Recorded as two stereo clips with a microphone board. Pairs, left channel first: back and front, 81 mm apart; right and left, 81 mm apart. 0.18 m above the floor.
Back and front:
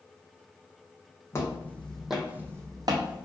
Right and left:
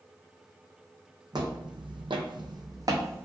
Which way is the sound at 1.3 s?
120° left.